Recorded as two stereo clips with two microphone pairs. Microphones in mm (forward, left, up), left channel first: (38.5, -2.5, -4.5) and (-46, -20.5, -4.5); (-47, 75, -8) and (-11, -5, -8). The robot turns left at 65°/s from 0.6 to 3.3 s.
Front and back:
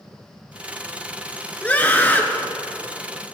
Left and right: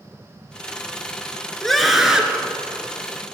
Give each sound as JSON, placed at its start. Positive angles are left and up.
{"t": 1.6, "sound": "a scream", "azimuth_deg": 45, "distance_m": 1.1}